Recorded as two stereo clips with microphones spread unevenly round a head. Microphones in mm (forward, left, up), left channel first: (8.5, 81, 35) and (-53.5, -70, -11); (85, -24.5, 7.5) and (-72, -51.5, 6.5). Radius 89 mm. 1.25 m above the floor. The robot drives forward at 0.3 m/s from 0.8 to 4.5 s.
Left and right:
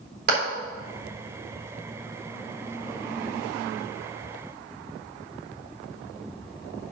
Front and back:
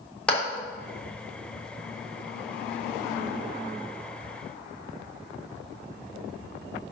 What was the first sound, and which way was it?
A clap, 75° right.